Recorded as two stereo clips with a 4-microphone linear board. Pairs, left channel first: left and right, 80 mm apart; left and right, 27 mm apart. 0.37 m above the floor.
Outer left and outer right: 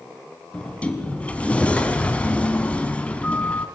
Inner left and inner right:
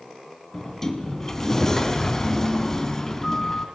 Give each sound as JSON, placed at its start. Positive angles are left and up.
{"t": 0.5, "sound": "a sliding door", "side_deg": 15, "distance_m": 2.0}